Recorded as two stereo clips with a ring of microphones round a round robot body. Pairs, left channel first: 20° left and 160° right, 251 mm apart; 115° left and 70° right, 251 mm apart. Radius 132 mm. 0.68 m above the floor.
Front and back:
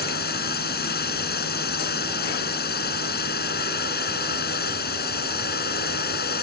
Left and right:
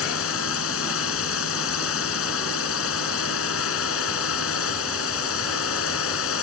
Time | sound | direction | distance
0.0 | a drone | 75° left | ?